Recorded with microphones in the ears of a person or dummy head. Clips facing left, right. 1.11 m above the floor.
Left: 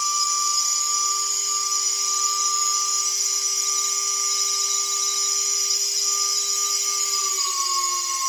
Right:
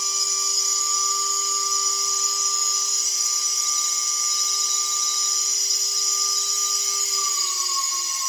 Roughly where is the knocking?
I don't hear knocking.